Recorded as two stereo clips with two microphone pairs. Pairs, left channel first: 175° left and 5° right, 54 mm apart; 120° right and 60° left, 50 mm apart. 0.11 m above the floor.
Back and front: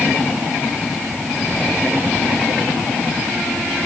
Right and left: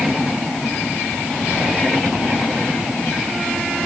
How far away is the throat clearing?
I don't hear throat clearing.